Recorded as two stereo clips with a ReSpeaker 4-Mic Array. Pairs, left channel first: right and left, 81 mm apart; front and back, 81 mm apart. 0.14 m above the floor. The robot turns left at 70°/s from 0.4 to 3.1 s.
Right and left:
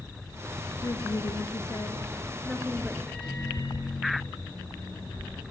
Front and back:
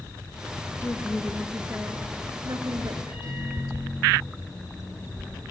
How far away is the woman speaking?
About 2 m.